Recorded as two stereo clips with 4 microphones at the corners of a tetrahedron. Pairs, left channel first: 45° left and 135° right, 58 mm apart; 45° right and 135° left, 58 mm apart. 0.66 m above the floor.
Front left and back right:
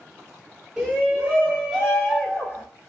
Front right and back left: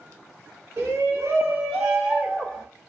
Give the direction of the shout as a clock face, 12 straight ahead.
7 o'clock.